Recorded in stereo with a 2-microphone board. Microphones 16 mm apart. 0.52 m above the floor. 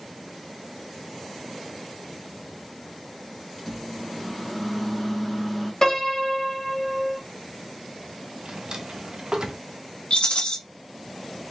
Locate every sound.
3.6 s a microwave: 5° left (ahead or behind), 1.2 m
5.8 s a piano: 35° left (ahead or behind), 1.7 m
8.4 s a drawer: 50° right (ahead or behind), 0.8 m
10.1 s a rattle: 75° left (ahead or behind), 1.1 m